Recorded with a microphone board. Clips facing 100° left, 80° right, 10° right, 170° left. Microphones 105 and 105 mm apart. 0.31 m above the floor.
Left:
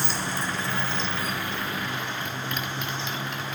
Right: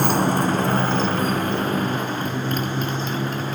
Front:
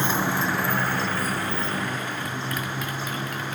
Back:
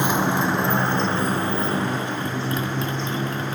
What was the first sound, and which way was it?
A motorcycle, 115° right.